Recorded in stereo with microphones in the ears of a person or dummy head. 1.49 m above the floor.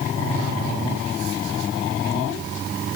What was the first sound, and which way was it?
Only background noise.